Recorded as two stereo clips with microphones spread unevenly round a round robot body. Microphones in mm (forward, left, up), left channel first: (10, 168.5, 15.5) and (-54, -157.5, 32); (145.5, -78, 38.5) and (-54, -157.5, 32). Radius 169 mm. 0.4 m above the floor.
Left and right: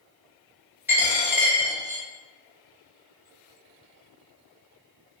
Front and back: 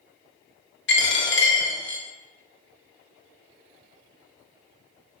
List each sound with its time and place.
0.9 s a dropped coin: 15° right, 0.7 m